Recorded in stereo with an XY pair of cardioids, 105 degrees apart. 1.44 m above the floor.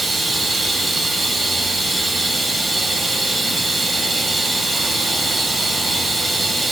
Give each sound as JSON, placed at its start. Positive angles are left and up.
{"t": 0.0, "sound": "running water", "azimuth_deg": -25, "distance_m": 4.5}